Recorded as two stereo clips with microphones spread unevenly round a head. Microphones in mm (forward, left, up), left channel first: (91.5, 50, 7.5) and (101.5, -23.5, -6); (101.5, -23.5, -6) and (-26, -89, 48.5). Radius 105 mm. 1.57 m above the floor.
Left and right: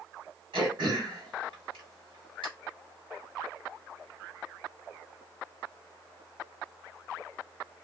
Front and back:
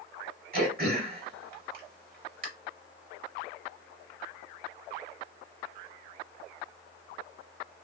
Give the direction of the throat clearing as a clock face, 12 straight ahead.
4 o'clock.